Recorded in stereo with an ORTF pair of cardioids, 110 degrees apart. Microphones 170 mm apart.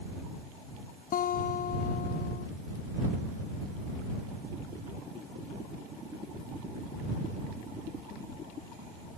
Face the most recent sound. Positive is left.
turn(degrees=55)